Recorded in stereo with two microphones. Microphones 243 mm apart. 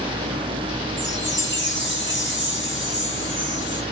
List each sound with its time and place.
1.0 s a chime: 50° left (ahead or behind), 1.2 m